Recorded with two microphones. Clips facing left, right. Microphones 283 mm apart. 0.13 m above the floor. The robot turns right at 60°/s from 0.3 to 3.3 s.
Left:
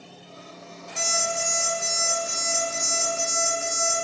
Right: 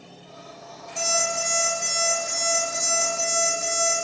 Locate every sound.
1.0 s an alarm clock: 25° left, 0.8 m; by 3.9 s 165° left, 0.8 m